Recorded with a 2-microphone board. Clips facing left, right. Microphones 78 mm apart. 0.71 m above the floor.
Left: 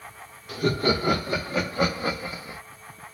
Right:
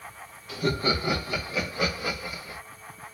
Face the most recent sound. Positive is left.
turn(degrees=20)  # may be behind; listen again after turning